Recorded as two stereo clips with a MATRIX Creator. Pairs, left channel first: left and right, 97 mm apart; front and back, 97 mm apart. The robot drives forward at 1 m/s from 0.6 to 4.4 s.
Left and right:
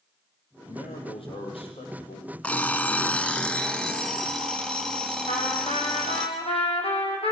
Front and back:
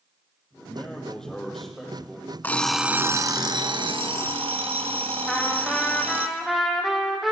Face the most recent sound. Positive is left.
turn(degrees=90)